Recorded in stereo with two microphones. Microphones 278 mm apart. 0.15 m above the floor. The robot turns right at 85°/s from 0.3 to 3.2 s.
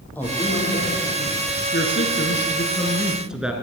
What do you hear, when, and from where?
0.1 s a woman speaking: 5° left, 5.5 m; by 1.6 s 115° left, 5.5 m
1.7 s a woman speaking: 60° left, 1.8 m; by 3.5 s 175° right, 1.8 m